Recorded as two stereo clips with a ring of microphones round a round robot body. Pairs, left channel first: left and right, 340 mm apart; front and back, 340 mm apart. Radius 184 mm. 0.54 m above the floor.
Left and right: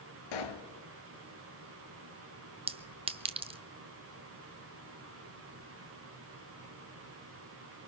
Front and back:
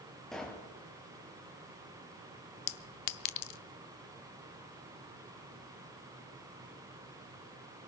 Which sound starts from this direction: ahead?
A clink, at 2.7 s.